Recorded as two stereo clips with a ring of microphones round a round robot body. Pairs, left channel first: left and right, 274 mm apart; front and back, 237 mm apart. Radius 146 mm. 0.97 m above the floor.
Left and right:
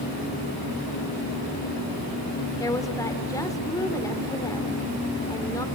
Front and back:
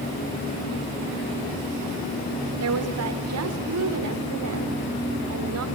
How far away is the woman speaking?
About 4 m.